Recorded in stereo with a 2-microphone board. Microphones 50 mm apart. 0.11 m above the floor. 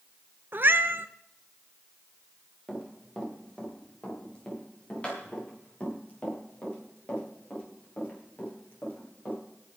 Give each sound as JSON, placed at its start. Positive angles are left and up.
{"t": 0.5, "sound": "a cat meowing", "side_deg": -45, "distance_m": 0.8}
{"t": 2.7, "sound": "running footsteps", "side_deg": 15, "distance_m": 7.0}